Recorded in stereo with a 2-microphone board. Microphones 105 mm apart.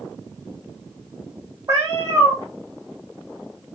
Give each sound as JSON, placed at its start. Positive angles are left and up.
{"t": 1.7, "sound": "a cat meowing", "side_deg": -30, "distance_m": 1.1}